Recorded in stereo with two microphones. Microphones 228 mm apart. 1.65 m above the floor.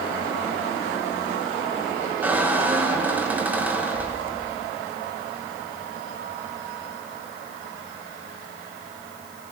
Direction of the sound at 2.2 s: 5° right (ahead or behind).